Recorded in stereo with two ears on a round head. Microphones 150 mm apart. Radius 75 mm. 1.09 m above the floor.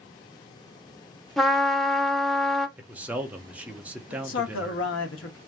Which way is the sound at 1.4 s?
Centre (ahead or behind).